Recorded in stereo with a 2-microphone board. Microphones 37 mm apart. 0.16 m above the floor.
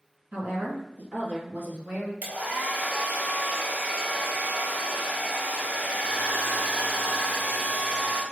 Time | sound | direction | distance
0.3 | a woman speaking | 40° right (ahead or behind) | 1.6 m
2.2 | a hair dryer | 50° right (ahead or behind) | 1.4 m